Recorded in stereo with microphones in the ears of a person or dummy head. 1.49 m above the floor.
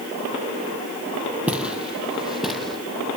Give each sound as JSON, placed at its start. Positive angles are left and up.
{"t": 1.5, "sound": "footsteps", "side_deg": -5, "distance_m": 3.0}